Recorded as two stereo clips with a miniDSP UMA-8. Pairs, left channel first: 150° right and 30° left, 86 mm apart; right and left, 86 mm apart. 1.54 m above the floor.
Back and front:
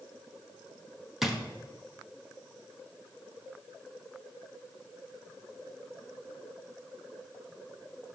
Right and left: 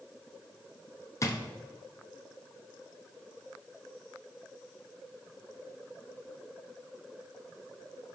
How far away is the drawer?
About 0.9 m.